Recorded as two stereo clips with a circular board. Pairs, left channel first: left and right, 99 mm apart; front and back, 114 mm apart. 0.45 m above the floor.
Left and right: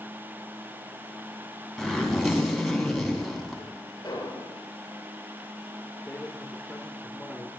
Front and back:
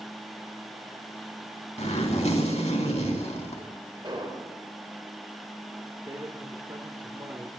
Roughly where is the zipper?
Ahead.